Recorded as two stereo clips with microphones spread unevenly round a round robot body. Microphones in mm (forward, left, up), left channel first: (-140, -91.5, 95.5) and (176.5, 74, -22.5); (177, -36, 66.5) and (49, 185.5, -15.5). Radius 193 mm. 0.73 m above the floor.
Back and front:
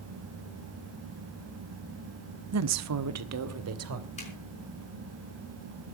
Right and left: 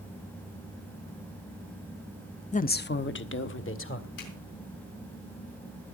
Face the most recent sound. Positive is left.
turn(degrees=-80)